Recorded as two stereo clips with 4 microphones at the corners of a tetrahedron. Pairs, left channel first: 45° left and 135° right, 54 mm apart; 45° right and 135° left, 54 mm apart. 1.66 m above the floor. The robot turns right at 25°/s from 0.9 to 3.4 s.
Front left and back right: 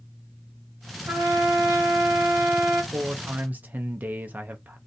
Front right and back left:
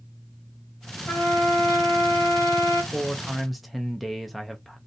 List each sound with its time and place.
1.1 s a trumpet: 95° right, 1.2 m; by 2.8 s 50° right, 1.2 m
2.9 s a man speaking: 145° right, 0.5 m; by 4.8 s 130° right, 0.5 m